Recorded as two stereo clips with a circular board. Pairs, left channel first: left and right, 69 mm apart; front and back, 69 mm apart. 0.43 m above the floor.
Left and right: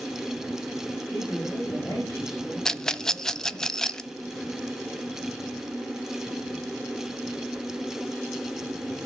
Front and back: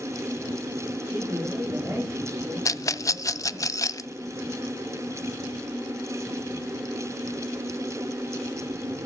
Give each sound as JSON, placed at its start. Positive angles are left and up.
{"t": 1.1, "sound": "a man speaking", "azimuth_deg": 130, "distance_m": 9.5}
{"t": 2.6, "sound": "a rattle", "azimuth_deg": 10, "distance_m": 0.5}